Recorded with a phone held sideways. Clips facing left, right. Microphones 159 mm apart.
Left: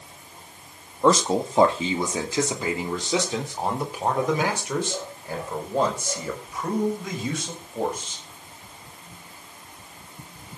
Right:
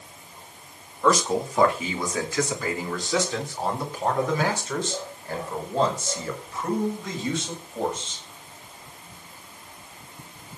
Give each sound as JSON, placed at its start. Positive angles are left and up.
{"t": 1.0, "sound": "a man speaking", "side_deg": 30, "distance_m": 2.0}